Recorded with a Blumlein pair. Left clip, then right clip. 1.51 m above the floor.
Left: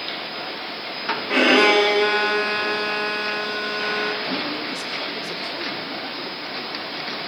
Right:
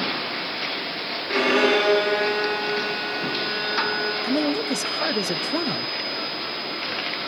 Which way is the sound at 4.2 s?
60° right.